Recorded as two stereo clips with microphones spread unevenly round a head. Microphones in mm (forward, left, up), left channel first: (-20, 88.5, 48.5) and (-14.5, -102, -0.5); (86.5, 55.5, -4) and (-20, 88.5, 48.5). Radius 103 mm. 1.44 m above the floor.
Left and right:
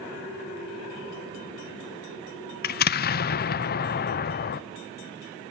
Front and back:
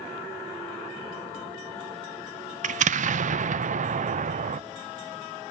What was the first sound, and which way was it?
An explosion, 140° left.